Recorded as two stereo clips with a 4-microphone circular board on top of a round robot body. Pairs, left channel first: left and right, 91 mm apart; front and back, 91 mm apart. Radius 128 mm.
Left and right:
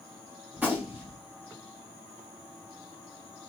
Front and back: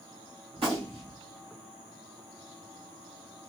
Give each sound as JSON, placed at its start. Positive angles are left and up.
{"t": 0.5, "sound": "a gunshot", "azimuth_deg": -165, "distance_m": 2.0}